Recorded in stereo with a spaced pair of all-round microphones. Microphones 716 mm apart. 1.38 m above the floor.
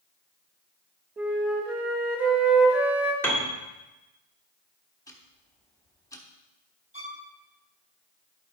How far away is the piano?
About 1.7 m.